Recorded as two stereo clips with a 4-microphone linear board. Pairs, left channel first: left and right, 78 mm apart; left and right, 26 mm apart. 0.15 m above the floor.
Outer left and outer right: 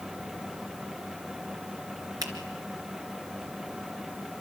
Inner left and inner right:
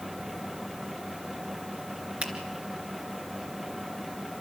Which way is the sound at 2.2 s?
50° right (ahead or behind).